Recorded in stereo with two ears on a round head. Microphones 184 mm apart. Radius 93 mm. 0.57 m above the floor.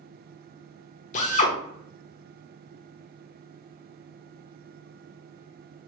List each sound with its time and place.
1.1 s a drill: 35° left (ahead or behind), 0.8 m